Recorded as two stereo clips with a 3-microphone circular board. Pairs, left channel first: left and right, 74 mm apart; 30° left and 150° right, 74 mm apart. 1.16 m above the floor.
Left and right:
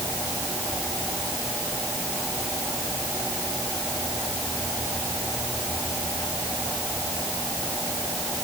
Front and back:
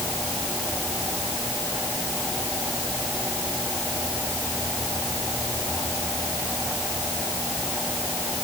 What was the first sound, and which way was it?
Only background noise.